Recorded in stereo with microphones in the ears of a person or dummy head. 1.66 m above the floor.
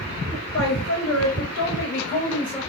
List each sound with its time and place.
0.3 s a woman speaking: 70° left (ahead or behind), 1.6 m; by 2.6 s 20° left (ahead or behind), 1.0 m